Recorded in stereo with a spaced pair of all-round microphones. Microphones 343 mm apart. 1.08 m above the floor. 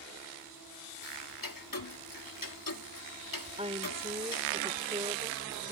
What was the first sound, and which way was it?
Ticking, 70° left (ahead or behind).